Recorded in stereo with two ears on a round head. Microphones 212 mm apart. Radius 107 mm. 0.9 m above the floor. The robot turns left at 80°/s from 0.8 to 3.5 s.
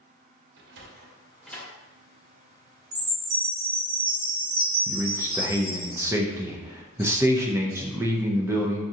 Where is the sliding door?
50° right (ahead or behind), 0.7 m; by 1.7 s 20° left (ahead or behind), 0.7 m.